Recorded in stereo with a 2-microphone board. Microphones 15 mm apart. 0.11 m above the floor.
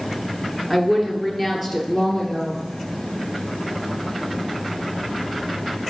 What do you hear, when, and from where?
0.7 s a woman speaking: 15° right (ahead or behind), 1.5 m; by 2.6 s 10° right (ahead or behind), 3.5 m